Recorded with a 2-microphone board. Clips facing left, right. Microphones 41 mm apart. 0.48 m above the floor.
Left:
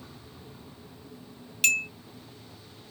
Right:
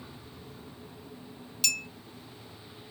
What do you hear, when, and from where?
1.6 s a clink: 45° left (ahead or behind)